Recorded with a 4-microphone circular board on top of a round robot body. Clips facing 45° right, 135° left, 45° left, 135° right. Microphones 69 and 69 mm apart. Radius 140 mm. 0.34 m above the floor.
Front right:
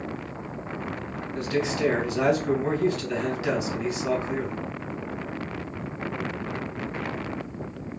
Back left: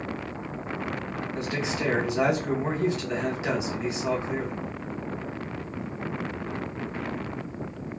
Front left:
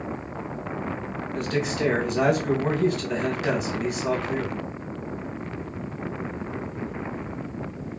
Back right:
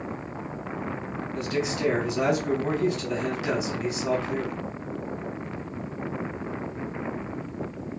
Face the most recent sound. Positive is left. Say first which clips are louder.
# front right 5 dB, front left 2 dB
turn(degrees=70)